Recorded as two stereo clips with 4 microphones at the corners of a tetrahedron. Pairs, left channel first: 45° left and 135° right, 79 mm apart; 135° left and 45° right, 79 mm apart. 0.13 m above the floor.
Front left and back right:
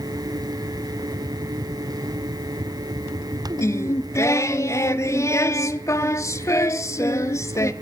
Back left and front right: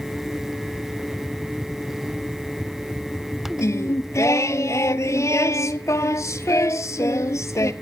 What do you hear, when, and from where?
3.6 s singing: 90° left, 0.6 m